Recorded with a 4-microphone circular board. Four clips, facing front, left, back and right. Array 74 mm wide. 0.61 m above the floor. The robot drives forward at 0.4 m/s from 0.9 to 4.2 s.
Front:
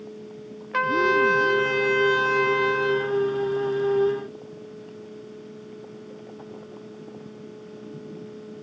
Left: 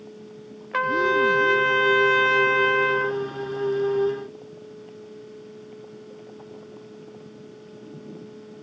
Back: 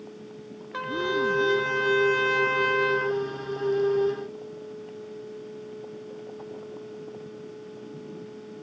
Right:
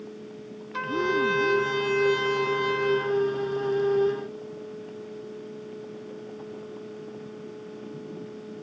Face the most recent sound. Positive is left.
turn(degrees=125)